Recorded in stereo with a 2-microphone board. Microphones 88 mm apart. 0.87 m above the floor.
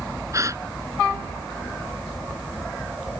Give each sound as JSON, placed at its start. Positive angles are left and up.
{"t": 0.3, "sound": "a gasp", "side_deg": -35}